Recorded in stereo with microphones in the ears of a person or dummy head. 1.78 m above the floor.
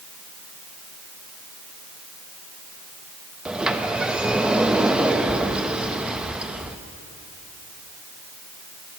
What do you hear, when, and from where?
3.5 s a sliding door: 5° right (ahead or behind), 0.5 m